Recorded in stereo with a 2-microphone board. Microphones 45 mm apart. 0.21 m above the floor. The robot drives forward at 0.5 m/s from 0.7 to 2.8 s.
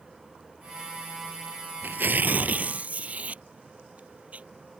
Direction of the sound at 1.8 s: 55° right (ahead or behind).